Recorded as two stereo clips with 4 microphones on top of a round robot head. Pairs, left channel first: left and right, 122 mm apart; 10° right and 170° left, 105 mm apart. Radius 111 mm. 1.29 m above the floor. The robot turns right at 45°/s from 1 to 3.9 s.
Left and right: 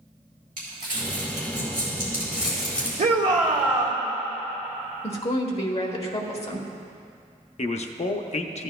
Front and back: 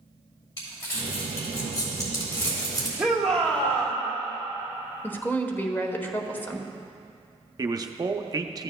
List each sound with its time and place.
0.6 s crumpling: 70° right, 3 m; by 2.9 s 15° left, 3 m
3.0 s a shout: 110° right, 1.7 m; by 4.0 s 65° right, 1.7 m
5.0 s a woman speaking: 60° left, 1.3 m
7.6 s a man speaking: 115° left, 0.7 m